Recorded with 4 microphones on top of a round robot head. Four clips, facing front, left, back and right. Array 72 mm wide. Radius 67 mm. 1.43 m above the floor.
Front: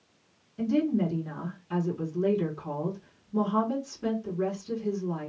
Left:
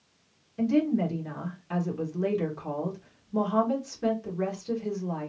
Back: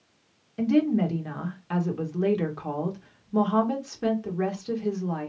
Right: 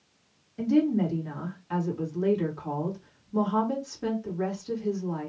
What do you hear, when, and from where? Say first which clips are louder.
0.6 s a woman speaking: right 1 dB, back 4 dB; 175° left, 1.4 m